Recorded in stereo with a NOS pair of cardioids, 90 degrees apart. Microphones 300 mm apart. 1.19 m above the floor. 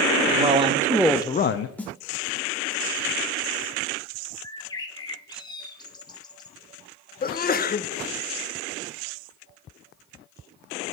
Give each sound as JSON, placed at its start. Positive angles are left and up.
{"t": 0.3, "sound": "a man speaking", "azimuth_deg": -25, "distance_m": 1.3}
{"t": 1.8, "sound": "a snare drum", "azimuth_deg": 5, "distance_m": 1.2}
{"t": 4.4, "sound": "a bird", "azimuth_deg": 15, "distance_m": 0.8}
{"t": 7.2, "sound": "a sneeze", "azimuth_deg": 30, "distance_m": 0.9}